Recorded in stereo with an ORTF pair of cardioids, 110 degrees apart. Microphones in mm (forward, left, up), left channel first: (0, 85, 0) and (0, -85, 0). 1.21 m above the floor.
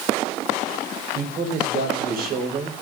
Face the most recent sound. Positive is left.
turn(degrees=-60)